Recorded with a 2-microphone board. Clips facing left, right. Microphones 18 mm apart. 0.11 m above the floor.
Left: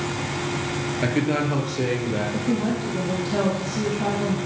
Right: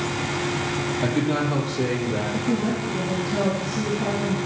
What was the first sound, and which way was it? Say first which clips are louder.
A man speaking: left 1 dB; 35° left (ahead or behind).